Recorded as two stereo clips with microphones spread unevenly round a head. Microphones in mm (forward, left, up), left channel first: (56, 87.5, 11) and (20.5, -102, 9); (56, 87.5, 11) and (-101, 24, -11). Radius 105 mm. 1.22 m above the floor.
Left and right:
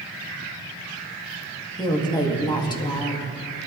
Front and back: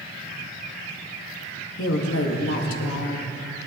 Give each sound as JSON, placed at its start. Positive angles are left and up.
{"t": 1.8, "sound": "a woman speaking", "azimuth_deg": 10, "distance_m": 1.8}